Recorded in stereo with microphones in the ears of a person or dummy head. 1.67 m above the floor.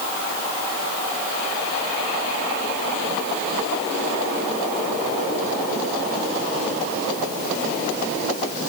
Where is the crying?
I don't hear crying.